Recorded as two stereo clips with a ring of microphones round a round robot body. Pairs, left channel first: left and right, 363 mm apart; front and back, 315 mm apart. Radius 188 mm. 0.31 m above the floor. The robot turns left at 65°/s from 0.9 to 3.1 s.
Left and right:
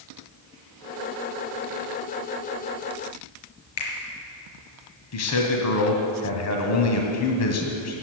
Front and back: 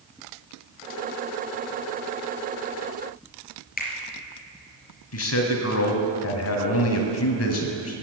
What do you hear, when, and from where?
3.8 s a finger snap: 65° left, 4.5 m
5.1 s a man speaking: 40° left, 2 m